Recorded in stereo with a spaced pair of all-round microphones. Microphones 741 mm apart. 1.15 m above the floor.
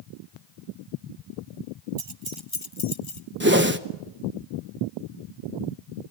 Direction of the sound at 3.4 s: 15° right (ahead or behind).